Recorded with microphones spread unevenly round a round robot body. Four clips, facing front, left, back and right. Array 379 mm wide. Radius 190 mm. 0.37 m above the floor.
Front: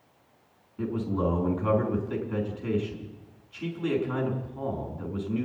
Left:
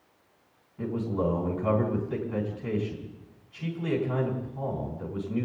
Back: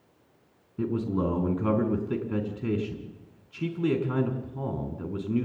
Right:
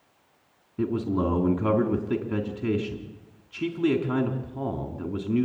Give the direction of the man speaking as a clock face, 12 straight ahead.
5 o'clock.